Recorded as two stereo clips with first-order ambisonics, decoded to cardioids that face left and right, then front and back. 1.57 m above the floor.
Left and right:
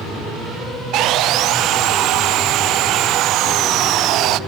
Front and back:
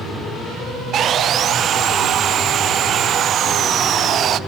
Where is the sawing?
125° right, 0.5 m.